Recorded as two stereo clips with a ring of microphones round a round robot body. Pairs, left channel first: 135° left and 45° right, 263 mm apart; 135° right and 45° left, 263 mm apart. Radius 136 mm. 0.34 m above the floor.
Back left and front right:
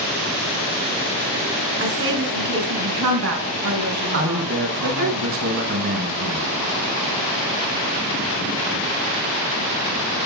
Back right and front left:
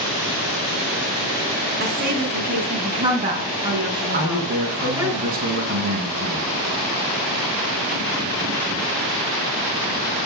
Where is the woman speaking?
5° right, 4.5 m; by 5.1 s 40° right, 4.5 m.